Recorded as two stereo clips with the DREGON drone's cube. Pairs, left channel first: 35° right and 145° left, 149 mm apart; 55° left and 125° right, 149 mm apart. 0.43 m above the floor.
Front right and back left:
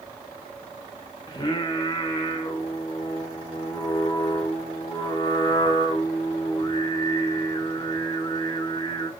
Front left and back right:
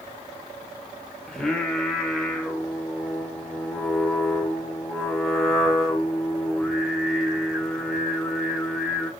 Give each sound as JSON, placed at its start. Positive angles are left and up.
{"t": 1.3, "sound": "singing", "azimuth_deg": -30, "distance_m": 0.5}